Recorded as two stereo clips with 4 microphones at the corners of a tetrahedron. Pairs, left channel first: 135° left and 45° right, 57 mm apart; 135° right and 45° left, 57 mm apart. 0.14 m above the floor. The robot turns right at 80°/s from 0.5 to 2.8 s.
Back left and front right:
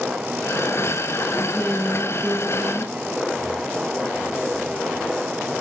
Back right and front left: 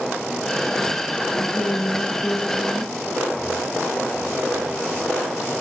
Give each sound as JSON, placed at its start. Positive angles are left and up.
{"t": 1.3, "sound": "a woman speaking", "azimuth_deg": -175, "distance_m": 4.5}